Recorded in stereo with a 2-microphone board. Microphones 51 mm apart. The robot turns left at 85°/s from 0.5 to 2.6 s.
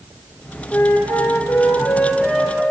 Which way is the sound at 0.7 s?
150° left.